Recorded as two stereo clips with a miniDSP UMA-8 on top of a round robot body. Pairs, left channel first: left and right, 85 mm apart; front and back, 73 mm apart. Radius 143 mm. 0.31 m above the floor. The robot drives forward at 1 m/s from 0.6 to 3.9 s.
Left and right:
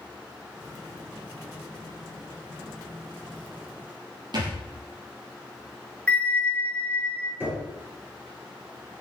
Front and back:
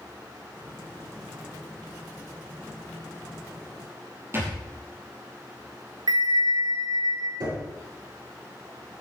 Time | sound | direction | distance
4.3 | a thud | 125° right | 6.5 m
6.1 | a bell | 165° left | 2.5 m
7.4 | knocking | 160° right | 8 m